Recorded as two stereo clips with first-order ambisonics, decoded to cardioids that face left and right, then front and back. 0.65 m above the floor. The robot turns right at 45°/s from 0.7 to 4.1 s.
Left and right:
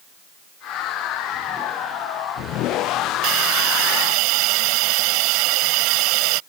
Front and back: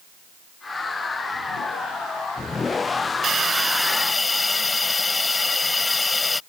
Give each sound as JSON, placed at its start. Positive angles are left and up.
{"t": 3.2, "sound": "a hiss", "azimuth_deg": -115}